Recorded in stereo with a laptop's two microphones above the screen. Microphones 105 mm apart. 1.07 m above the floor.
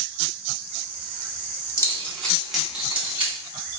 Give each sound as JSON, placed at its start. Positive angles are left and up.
{"t": 1.8, "sound": "keys jangling", "side_deg": 30, "distance_m": 1.2}